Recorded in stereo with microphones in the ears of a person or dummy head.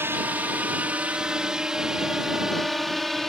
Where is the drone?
10° right (ahead or behind); by 3.3 s 5° left (ahead or behind).